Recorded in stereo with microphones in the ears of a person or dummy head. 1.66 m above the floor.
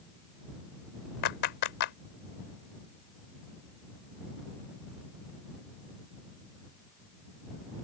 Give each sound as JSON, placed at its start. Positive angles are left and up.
{"t": 1.2, "sound": "a clap", "side_deg": 60}